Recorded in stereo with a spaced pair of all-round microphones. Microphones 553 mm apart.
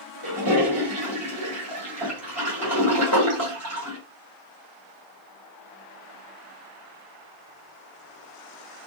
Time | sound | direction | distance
0.2 | a toilet flushing | 30° right (ahead or behind) | 1.4 m